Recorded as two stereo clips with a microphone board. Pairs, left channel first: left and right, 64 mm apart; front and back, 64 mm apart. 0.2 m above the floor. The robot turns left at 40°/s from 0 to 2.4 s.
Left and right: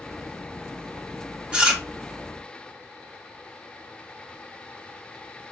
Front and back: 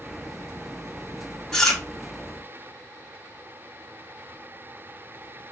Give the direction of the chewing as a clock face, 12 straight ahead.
2 o'clock.